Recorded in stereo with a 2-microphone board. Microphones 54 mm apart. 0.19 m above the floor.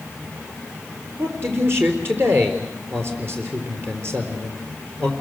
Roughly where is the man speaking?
Right.